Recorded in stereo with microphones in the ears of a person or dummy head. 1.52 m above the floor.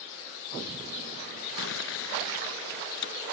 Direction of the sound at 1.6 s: 70° left (ahead or behind).